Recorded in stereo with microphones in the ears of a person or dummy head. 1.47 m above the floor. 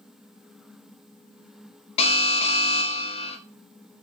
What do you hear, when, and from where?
2.0 s an alarm: 35° left (ahead or behind), 1.5 m